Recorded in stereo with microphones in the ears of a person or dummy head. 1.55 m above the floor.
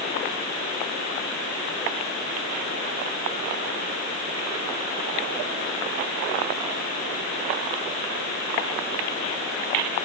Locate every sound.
Only background noise.